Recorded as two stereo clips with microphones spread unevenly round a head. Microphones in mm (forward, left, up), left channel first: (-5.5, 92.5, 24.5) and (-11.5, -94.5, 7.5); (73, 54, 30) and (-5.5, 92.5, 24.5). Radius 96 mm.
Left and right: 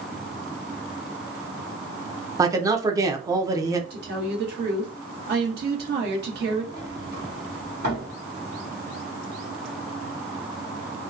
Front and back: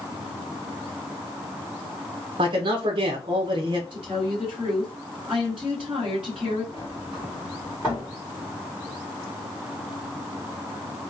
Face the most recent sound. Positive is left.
turn(degrees=-130)